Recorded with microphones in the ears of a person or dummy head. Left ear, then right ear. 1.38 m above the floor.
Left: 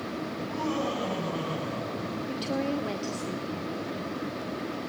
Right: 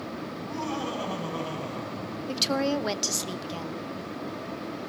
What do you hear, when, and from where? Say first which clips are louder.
0.3 s laughter: left 2 dB; 5° left (ahead or behind), 7.5 m
2.3 s a woman speaking: right 6 dB; 55° right (ahead or behind), 0.6 m